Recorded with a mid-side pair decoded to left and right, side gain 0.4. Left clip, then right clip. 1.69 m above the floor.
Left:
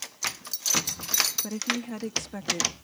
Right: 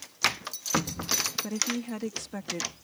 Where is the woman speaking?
5° right.